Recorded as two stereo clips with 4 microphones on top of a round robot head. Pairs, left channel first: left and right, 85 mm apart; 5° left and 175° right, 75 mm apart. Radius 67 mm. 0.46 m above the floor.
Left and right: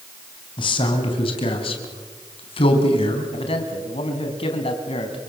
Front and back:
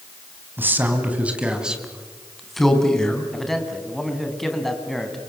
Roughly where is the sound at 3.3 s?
Left.